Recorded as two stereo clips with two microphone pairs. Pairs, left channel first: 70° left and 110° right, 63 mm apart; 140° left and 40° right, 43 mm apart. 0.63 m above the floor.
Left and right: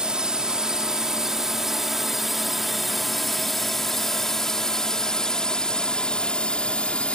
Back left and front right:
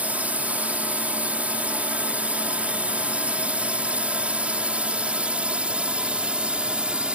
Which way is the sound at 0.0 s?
40° right.